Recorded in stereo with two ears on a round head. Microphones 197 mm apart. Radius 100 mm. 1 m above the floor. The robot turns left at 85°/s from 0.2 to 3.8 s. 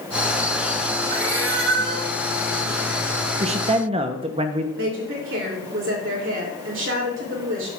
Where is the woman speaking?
55° right (ahead or behind), 2.5 m.